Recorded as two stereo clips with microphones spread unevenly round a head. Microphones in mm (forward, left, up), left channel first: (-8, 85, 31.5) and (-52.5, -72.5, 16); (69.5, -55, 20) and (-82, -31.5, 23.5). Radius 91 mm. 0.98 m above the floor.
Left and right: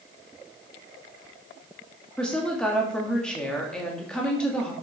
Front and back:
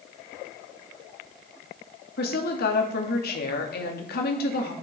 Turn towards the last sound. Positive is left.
turn(degrees=-15)